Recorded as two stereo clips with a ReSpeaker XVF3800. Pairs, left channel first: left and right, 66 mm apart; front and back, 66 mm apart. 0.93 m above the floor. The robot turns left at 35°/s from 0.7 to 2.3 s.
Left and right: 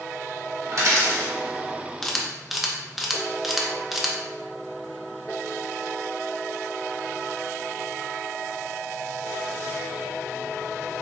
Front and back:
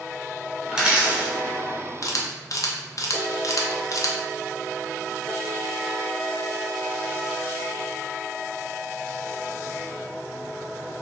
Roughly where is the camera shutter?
Ahead.